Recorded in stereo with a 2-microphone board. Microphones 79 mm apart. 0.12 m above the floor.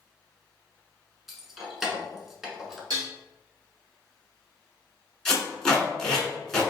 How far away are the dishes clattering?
About 1.7 m.